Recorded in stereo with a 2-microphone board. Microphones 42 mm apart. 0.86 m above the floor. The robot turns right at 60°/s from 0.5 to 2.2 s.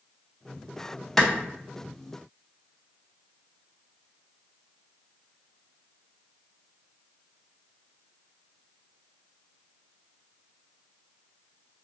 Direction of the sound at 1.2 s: 5° left (ahead or behind).